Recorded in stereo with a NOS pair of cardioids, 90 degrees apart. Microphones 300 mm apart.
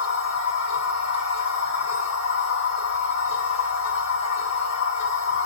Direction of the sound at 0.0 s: 65° left.